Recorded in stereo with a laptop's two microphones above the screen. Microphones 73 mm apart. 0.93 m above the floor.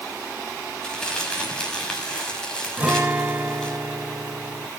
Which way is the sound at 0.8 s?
10° left (ahead or behind).